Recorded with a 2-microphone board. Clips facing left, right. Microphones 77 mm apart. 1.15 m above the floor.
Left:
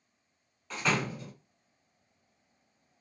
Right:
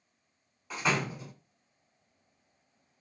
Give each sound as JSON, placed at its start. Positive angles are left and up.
{"t": 0.7, "sound": "a door slam", "side_deg": -10, "distance_m": 1.3}